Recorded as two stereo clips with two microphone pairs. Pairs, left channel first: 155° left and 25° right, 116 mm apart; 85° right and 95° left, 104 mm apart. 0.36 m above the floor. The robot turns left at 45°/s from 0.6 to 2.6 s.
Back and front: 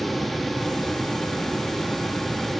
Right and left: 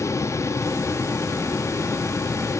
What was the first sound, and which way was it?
Only background noise.